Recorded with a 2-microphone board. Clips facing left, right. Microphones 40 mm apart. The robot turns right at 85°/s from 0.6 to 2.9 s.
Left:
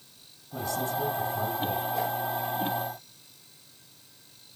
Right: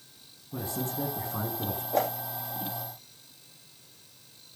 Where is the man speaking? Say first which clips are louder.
Left 4 dB; 160° right, 6 m; by 1.8 s 55° right, 6 m.